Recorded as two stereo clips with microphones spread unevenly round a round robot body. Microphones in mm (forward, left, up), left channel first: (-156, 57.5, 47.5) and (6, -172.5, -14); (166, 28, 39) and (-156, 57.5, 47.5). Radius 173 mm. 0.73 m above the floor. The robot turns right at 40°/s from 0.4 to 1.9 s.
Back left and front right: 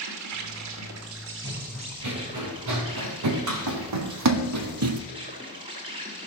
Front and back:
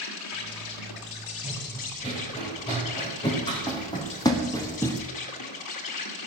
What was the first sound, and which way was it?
An insect, 45° right.